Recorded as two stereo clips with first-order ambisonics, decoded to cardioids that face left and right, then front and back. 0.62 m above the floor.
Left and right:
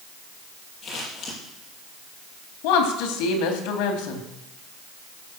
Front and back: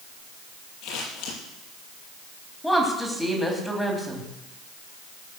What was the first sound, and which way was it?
Scissors, 25° left.